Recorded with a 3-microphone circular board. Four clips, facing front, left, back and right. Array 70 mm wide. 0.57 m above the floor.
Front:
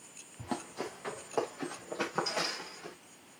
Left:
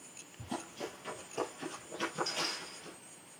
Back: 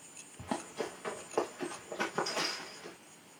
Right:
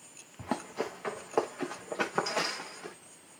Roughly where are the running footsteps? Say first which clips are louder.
Right 7 dB, back 1 dB; right.